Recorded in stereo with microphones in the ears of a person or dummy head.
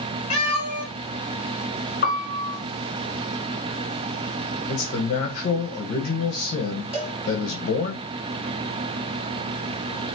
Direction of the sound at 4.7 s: 45° left (ahead or behind).